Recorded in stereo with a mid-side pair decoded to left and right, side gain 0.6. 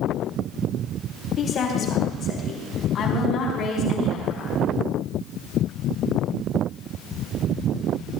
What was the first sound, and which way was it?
A woman speaking, 45° left.